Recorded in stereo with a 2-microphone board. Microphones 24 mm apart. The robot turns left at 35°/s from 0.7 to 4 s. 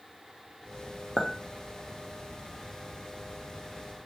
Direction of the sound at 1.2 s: 15° left (ahead or behind).